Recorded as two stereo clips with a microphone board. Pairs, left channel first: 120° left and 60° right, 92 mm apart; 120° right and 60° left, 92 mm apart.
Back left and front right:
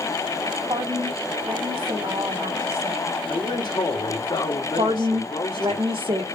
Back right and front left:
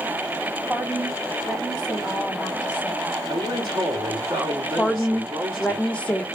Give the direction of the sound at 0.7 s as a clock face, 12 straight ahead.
1 o'clock.